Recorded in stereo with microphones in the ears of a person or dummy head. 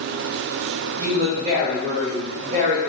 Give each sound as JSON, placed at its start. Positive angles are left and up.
{"t": 1.0, "sound": "a woman speaking", "side_deg": -35, "distance_m": 0.5}